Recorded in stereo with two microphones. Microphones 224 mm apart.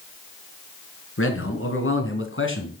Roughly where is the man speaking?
Left.